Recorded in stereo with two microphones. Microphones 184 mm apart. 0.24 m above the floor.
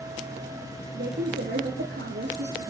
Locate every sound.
0.9 s a woman speaking: 75° right (ahead or behind), 5.5 m